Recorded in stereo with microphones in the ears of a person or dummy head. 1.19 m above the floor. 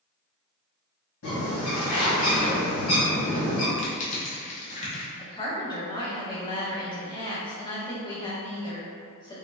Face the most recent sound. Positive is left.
turn(degrees=20)  # may be behind; listen again after turning